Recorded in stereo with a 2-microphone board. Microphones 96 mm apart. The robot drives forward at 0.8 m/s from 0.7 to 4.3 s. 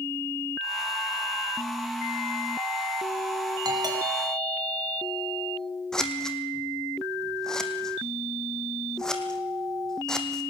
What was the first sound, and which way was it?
A doorbell, 45° right (ahead or behind).